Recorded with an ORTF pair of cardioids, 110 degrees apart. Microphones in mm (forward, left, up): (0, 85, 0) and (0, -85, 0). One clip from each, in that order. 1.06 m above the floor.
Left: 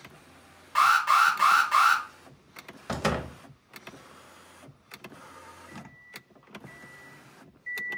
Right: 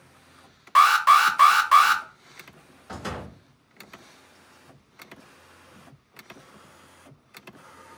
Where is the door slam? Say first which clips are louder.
Left 6 dB; 50° left, 0.5 m.